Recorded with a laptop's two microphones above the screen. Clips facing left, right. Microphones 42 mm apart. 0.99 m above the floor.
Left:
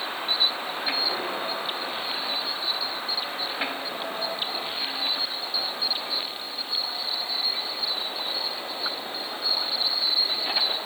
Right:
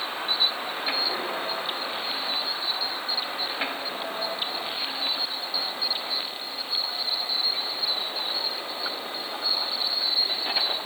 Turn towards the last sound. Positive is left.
No sound to turn to.